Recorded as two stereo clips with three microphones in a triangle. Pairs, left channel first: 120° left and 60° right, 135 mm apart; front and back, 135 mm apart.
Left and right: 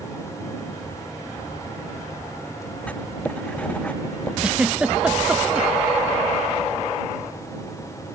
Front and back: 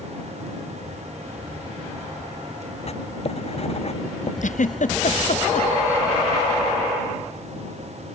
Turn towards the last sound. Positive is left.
turn(degrees=25)